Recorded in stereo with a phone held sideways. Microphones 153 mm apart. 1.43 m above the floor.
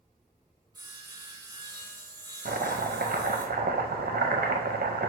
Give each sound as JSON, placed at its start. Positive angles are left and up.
{"t": 0.7, "sound": "sawing", "side_deg": -25, "distance_m": 1.0}
{"t": 2.5, "sound": "chopping", "side_deg": -80, "distance_m": 0.5}